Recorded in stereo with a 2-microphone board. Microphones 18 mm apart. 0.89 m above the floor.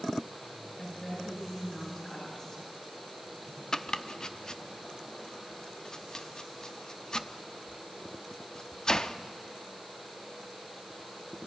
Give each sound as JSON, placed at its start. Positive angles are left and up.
{"t": 0.8, "sound": "a woman speaking", "side_deg": 35, "distance_m": 8.5}
{"t": 3.7, "sound": "chopping", "side_deg": 40, "distance_m": 0.6}